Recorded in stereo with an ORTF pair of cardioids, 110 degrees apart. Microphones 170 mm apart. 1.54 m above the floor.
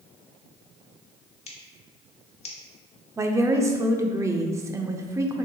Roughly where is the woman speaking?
Ahead.